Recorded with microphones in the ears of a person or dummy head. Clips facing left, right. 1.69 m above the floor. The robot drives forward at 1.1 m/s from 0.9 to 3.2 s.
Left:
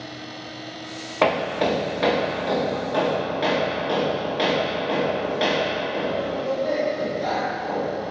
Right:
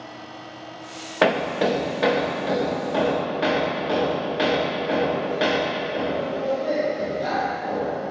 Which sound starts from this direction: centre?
Hammering, at 1.2 s.